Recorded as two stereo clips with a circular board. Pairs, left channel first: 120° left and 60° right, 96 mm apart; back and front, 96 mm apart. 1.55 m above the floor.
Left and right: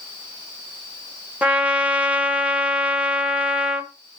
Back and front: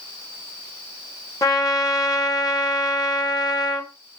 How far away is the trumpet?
About 1.2 m.